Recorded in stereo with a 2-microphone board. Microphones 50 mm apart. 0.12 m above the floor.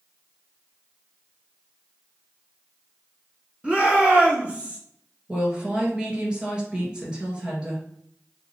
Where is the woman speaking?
20° right (ahead or behind), 2 m.